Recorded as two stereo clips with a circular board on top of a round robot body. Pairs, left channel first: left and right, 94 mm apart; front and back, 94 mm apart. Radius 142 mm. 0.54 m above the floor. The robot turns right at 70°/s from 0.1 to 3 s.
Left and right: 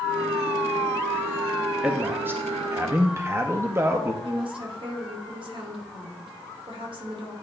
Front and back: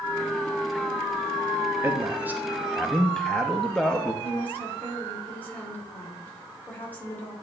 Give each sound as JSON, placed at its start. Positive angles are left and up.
{"t": 1.8, "sound": "a man speaking", "azimuth_deg": -160, "distance_m": 0.8}
{"t": 4.2, "sound": "a woman speaking", "azimuth_deg": -70, "distance_m": 2.0}